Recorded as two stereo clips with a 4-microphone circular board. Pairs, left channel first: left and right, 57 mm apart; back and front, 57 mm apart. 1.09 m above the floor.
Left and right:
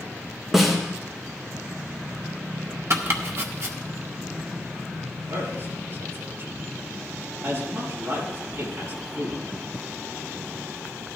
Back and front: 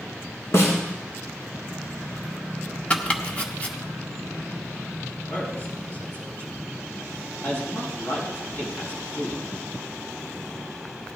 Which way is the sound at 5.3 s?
130° right.